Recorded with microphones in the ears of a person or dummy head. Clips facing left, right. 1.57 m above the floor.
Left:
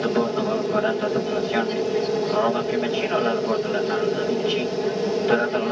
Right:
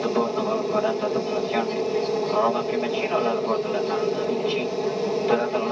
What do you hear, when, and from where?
0.0 s an aircraft: 10° left (ahead or behind)